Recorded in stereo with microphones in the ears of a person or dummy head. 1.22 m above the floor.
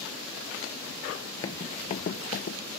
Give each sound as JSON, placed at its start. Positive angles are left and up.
{"t": 1.4, "sound": "running footsteps", "side_deg": 20}